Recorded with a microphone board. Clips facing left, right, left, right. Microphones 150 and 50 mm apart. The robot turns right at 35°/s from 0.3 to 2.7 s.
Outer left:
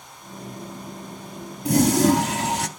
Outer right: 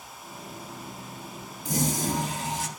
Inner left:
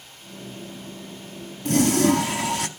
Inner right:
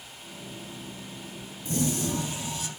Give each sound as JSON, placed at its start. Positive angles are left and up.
{"t": 1.6, "sound": "a toilet flushing", "azimuth_deg": 70, "distance_m": 0.7}